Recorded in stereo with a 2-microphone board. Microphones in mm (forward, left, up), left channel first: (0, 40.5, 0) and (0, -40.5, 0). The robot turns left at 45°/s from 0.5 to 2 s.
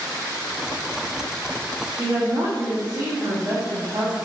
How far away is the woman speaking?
About 0.8 m.